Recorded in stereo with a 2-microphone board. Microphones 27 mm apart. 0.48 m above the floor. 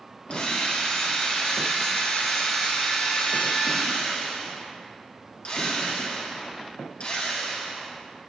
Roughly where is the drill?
Left.